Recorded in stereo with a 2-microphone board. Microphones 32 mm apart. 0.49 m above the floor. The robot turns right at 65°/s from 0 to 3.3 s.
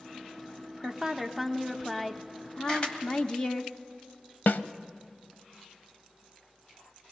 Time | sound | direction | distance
0.8 | a woman speaking | 20° right (ahead or behind) | 0.7 m
2.7 | a camera shutter | 20° left (ahead or behind) | 2 m
4.5 | a snare drum | 80° left | 0.6 m